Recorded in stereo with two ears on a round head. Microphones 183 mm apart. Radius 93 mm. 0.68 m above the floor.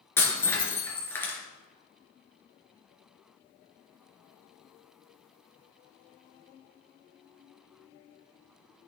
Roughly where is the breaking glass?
Centre.